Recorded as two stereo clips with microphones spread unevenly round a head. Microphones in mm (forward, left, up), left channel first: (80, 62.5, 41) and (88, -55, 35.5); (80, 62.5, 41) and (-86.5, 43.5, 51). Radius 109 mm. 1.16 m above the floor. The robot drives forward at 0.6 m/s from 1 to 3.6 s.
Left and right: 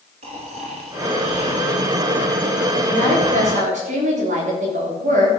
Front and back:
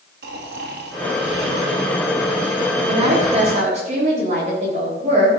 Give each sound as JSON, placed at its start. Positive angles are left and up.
{"t": 0.2, "sound": "snoring", "azimuth_deg": -135, "distance_m": 2.5}
{"t": 2.8, "sound": "a woman speaking", "azimuth_deg": -110, "distance_m": 3.5}